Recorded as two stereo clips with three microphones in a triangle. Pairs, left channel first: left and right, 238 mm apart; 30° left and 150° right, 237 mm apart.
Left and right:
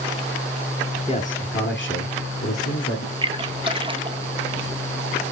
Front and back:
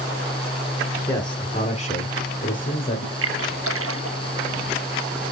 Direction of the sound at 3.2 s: 160° right.